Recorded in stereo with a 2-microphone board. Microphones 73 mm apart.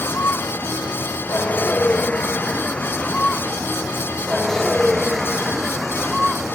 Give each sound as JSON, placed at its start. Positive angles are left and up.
{"t": 0.0, "sound": "a vehicle", "side_deg": 30}